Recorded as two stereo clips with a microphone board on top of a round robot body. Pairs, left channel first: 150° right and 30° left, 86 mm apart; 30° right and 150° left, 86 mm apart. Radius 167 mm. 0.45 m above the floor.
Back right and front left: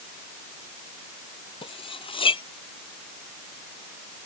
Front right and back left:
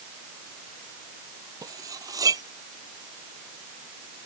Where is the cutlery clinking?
165° right.